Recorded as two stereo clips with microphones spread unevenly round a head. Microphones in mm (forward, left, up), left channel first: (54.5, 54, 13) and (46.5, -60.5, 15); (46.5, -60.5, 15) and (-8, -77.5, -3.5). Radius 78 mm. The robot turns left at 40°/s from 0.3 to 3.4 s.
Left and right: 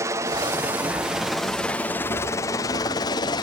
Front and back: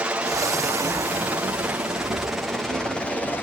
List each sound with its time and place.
0.0 s a helicopter: 145° right; by 3.4 s 95° left